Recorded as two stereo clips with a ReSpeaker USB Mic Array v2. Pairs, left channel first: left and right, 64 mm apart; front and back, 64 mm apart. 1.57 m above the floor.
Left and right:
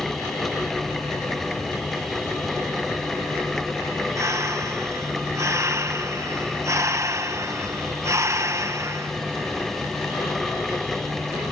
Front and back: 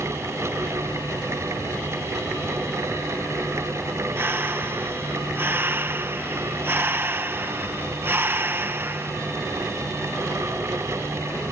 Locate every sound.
4.2 s breathing: 125° right